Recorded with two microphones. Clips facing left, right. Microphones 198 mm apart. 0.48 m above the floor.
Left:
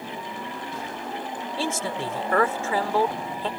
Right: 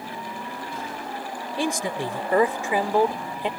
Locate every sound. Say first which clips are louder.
1.6 s a man speaking: right 3 dB; 15° right (ahead or behind)